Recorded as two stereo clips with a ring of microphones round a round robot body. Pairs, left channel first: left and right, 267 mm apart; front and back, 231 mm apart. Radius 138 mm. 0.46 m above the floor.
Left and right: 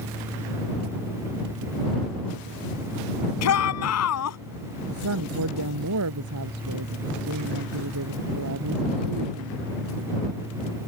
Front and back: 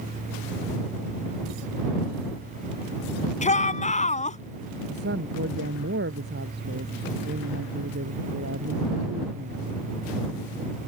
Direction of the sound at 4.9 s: 125° right.